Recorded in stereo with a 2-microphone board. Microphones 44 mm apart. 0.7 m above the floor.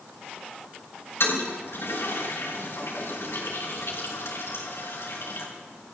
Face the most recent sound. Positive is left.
turn(degrees=85)